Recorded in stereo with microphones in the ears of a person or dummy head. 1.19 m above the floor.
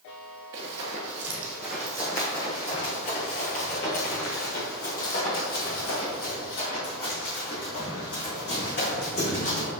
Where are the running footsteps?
25° right (ahead or behind), 1.3 m; by 9.7 s 55° left (ahead or behind), 4.5 m.